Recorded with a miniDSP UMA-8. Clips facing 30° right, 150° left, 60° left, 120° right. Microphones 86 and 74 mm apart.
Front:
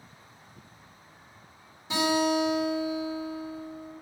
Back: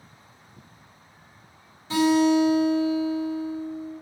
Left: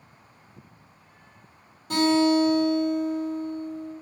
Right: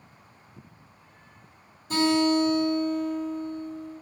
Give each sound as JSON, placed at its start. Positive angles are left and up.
{"t": 1.9, "sound": "a guitar", "azimuth_deg": 45, "distance_m": 1.7}